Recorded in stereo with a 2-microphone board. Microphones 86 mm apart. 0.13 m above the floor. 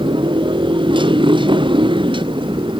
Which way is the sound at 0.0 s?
75° right (ahead or behind).